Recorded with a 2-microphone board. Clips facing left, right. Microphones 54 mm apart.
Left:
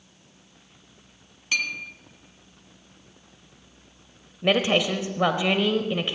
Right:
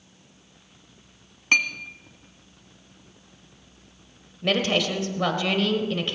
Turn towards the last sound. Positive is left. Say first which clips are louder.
# left 2 dB
turn(degrees=20)  # may be behind; listen again after turning